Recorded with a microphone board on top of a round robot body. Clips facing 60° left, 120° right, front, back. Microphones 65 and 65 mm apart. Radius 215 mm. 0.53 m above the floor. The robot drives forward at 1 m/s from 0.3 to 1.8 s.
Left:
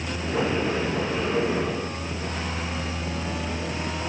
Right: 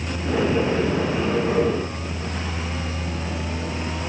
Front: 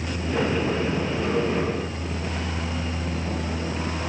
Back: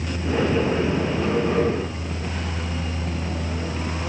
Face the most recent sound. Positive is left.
No sound to turn to.